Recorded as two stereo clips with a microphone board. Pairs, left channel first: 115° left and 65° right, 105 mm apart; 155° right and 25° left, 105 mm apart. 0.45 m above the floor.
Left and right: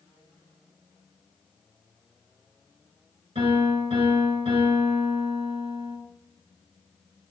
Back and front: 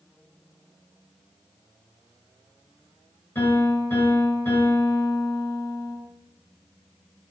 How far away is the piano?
About 4 m.